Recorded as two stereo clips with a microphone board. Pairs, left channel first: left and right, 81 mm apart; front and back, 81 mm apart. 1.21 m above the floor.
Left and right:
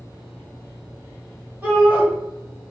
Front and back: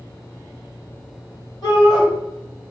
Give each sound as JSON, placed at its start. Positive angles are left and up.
{"t": 1.6, "sound": "a shout", "azimuth_deg": -20, "distance_m": 1.5}